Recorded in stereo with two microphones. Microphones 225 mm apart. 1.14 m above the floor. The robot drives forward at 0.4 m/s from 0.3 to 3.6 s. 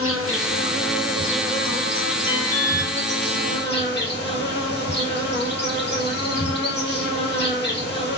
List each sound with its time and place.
0.0 s an insect: 70° left (ahead or behind), 1.5 m; by 8.2 s 50° left (ahead or behind), 1.9 m
2.3 s an alarm: 35° left (ahead or behind), 3 m; by 2.9 s 40° left (ahead or behind), 2.5 m